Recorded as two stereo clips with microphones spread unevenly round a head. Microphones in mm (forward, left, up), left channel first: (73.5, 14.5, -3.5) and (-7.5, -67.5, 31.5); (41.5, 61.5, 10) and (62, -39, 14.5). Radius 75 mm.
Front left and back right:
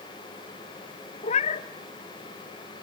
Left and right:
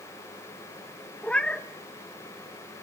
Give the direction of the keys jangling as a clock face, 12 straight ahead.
No keys jangling in this recording.